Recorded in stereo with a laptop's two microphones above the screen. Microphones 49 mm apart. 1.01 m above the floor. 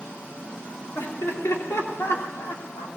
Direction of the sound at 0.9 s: 60° left (ahead or behind).